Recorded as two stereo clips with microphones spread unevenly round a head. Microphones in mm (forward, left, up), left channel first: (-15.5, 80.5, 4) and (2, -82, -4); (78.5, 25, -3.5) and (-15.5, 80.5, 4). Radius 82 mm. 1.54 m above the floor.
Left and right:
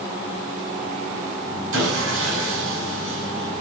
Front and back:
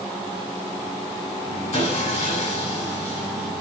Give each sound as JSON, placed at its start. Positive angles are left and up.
{"t": 1.7, "sound": "sawing", "azimuth_deg": -80, "distance_m": 7.5}